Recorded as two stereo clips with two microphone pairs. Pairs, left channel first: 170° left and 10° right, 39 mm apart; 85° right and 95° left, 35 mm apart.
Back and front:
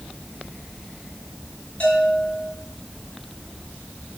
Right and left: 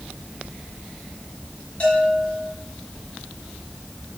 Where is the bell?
140° right, 5 m.